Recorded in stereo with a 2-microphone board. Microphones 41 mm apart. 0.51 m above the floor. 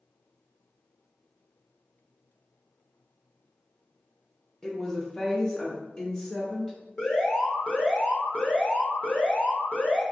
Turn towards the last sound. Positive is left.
turn(degrees=30)  # may be behind; listen again after turning